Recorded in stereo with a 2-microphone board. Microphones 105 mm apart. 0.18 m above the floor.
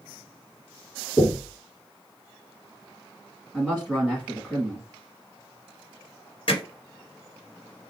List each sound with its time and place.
1.2 s knocking: 25° left (ahead or behind), 1.5 m
3.5 s a man speaking: 5° left (ahead or behind), 1.4 m
6.5 s hammering: 55° left (ahead or behind), 2 m